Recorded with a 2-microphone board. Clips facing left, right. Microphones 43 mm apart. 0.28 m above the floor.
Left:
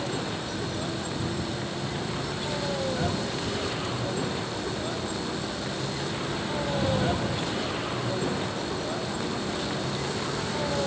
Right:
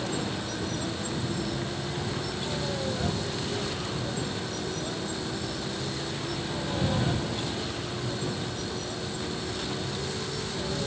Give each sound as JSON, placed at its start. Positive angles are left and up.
{"t": 0.0, "sound": "a vehicle", "side_deg": 10}